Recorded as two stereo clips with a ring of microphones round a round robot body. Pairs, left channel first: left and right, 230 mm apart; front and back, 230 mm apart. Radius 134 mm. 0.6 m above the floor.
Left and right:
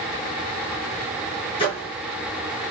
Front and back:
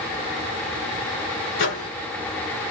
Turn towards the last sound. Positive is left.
turn(degrees=25)